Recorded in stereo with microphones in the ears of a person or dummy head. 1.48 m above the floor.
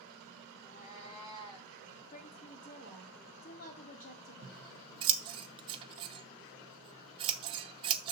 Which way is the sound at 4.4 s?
30° right (ahead or behind).